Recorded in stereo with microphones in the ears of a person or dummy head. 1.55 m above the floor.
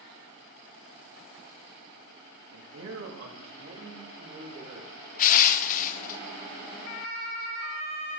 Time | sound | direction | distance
2.5 | a man speaking | 85° right | 2.5 m
5.2 | crushing | 45° left (ahead or behind) | 0.6 m